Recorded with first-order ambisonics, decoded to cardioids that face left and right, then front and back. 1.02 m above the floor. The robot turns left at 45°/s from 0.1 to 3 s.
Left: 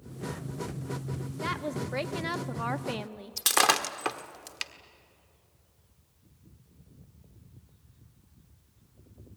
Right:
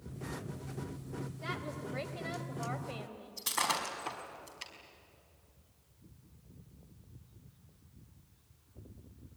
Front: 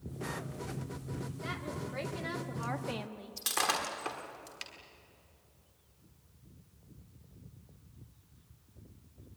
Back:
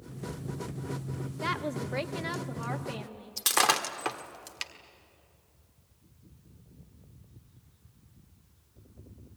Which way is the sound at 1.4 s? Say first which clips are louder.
Left 9 dB, back 9 dB; 150° left.